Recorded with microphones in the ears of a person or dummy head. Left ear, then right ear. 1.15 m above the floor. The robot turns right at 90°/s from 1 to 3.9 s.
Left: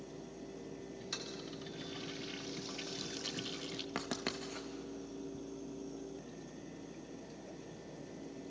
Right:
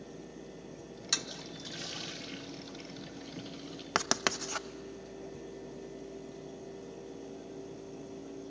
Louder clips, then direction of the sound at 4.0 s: Right 12 dB; 45° right (ahead or behind).